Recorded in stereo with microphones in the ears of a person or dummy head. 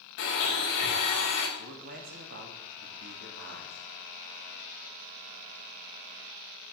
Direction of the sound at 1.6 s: 60° right (ahead or behind).